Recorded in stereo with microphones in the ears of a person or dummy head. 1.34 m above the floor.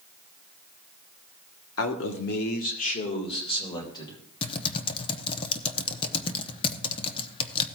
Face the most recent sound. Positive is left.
turn(degrees=30)  # may be behind; listen again after turning